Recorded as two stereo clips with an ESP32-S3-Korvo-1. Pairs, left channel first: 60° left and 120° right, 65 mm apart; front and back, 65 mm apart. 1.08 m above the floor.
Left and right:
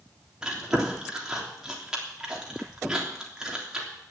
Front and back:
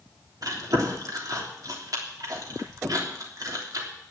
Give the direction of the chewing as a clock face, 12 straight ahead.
7 o'clock.